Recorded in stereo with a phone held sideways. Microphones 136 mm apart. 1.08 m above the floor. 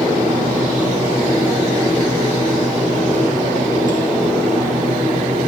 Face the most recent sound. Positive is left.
turn(degrees=-70)  # may be behind; listen again after turning